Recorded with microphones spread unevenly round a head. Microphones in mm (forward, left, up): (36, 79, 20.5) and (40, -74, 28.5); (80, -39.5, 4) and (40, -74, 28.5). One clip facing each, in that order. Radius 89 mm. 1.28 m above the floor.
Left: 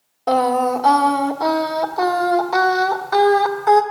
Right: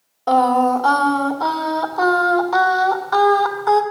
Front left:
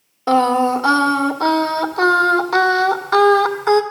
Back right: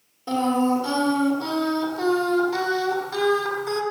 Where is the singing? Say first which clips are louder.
Right 2 dB, front left 7 dB; 15° left, 1.3 m.